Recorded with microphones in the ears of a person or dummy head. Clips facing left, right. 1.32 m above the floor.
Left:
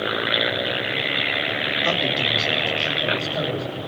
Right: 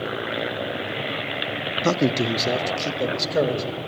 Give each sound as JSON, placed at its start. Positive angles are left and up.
{"t": 1.8, "sound": "a man speaking", "side_deg": -50, "distance_m": 1.1}